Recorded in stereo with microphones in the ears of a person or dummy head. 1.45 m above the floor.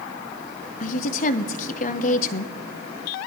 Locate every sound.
0.8 s a woman speaking: 45° left (ahead or behind), 0.7 m